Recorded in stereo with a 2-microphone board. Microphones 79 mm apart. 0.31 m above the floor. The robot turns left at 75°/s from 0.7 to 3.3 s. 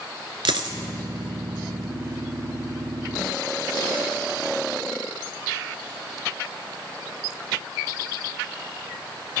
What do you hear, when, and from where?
0.5 s a dropped coin: 80° right, 0.8 m; by 0.8 s 85° right, 0.8 m